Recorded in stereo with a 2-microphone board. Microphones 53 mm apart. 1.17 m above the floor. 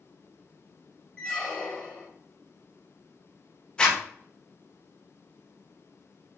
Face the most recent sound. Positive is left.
turn(degrees=15)  # may be behind; listen again after turning